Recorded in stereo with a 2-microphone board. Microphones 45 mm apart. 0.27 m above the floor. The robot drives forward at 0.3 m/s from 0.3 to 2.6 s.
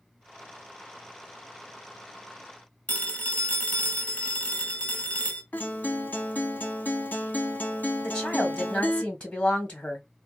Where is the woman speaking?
25° left (ahead or behind), 1.3 m.